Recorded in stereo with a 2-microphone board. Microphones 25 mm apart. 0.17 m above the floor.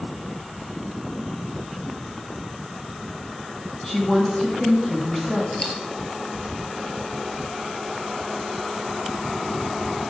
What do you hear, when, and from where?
3.8 s a woman speaking: 15° left (ahead or behind), 1.6 m
5.5 s a dropped coin: 25° left (ahead or behind), 1.1 m